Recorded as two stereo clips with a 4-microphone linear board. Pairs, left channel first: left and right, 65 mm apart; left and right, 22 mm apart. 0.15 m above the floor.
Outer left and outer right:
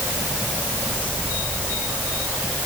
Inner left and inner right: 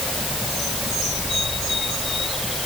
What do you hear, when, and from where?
Only background noise.